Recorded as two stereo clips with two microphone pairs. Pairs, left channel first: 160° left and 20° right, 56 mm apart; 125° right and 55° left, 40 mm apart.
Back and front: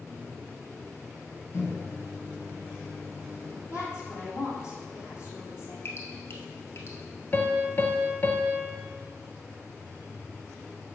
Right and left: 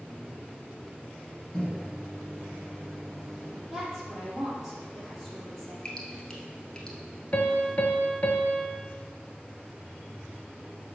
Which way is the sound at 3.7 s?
150° left.